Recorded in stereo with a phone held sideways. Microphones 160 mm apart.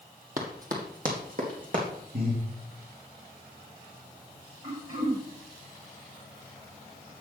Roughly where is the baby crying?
No baby crying in this recording.